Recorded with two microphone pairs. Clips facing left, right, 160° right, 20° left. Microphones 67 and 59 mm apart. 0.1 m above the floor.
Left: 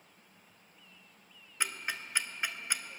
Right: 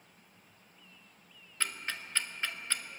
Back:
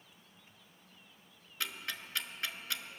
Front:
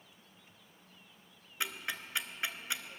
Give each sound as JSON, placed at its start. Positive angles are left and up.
{"t": 1.6, "sound": "ticking", "azimuth_deg": 35, "distance_m": 0.7}